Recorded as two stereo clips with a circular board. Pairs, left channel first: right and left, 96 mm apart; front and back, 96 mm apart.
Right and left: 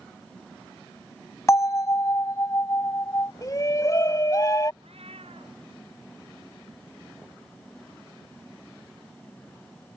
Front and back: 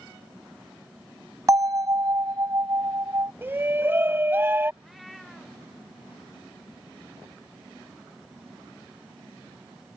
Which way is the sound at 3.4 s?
125° right.